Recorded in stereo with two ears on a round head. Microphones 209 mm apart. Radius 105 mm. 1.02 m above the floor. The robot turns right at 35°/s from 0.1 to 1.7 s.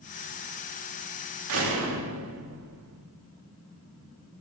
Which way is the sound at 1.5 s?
65° right (ahead or behind).